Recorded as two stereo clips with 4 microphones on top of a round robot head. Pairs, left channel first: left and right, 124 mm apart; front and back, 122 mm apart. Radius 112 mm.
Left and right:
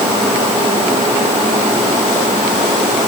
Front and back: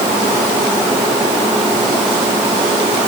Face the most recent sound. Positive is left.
No sound to turn to.